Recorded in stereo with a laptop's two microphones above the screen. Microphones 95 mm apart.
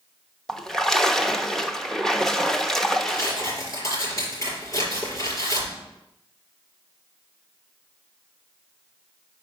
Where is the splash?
5° left (ahead or behind), 0.8 m.